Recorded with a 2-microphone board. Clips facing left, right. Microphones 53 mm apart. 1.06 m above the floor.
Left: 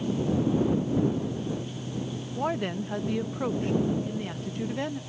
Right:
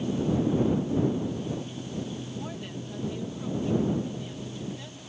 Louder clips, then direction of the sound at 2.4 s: Left 8 dB; 55° left (ahead or behind).